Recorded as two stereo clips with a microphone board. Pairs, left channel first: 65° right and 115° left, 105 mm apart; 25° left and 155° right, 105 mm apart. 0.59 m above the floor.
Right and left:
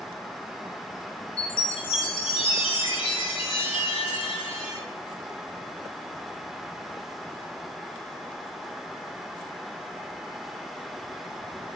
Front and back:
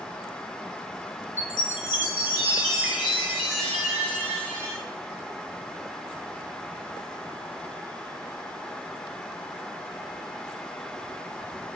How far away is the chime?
About 2 m.